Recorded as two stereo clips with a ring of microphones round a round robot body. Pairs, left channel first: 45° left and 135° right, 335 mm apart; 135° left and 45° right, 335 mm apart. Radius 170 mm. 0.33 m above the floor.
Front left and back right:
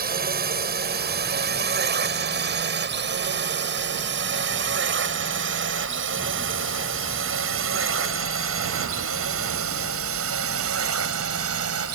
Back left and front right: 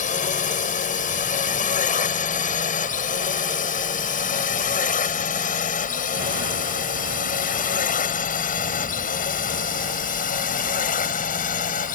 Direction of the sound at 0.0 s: 175° right.